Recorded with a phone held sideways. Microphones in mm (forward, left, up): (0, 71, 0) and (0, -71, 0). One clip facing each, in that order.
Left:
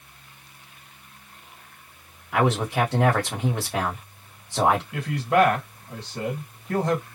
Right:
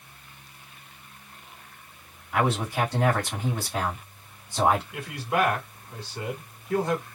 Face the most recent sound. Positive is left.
turn(degrees=90)